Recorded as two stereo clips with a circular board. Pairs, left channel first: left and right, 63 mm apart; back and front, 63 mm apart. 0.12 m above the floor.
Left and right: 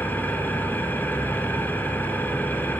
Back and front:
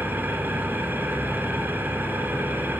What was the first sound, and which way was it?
An engine running, 45° left.